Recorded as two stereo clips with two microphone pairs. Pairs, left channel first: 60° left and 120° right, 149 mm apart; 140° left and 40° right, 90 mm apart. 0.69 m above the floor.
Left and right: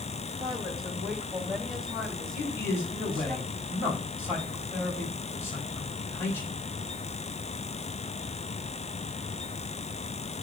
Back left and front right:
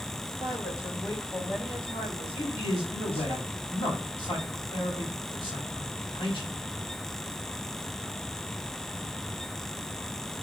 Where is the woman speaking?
175° left, 3 m; by 3.4 s 140° left, 5.5 m.